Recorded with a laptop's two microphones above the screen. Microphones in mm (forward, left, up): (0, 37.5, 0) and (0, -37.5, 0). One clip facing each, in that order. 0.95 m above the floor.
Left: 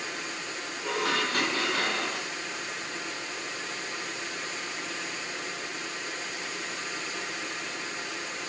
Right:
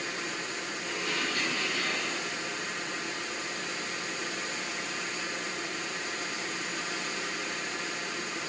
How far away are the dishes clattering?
About 6 m.